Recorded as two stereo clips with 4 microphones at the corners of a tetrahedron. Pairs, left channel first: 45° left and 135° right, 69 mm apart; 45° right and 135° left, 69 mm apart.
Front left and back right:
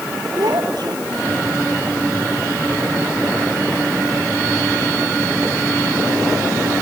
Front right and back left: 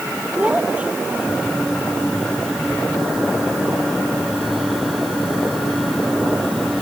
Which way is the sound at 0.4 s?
155° right.